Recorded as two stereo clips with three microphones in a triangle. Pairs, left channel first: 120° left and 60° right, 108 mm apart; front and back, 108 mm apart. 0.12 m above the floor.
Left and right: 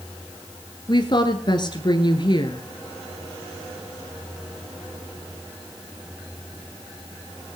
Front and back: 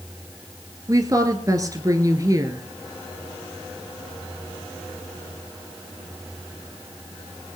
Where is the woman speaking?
135° left, 1.4 m.